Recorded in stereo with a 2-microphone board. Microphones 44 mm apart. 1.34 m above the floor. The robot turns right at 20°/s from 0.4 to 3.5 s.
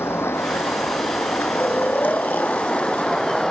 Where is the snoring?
95° left; by 3.1 s 125° left.